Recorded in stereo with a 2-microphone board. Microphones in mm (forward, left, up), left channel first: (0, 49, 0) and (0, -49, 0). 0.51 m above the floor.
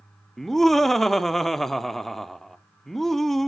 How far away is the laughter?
About 0.7 m.